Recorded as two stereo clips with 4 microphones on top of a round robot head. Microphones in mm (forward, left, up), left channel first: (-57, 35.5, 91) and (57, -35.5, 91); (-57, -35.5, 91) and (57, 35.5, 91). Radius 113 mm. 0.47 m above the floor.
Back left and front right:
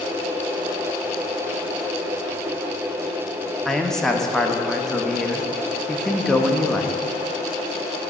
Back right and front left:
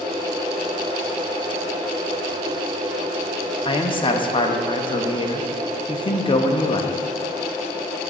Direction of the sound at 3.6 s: 130° right.